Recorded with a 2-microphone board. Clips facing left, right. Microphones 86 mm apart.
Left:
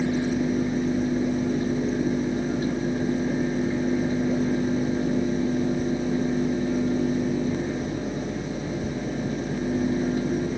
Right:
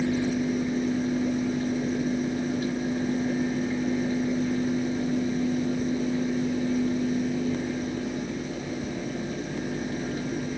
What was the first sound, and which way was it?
Only background noise.